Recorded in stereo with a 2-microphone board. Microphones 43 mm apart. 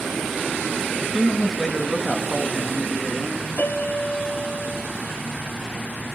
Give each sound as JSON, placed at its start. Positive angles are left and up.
{"t": 1.0, "sound": "a man speaking", "side_deg": 20, "distance_m": 1.7}
{"t": 3.6, "sound": "a piano", "side_deg": 50, "distance_m": 1.4}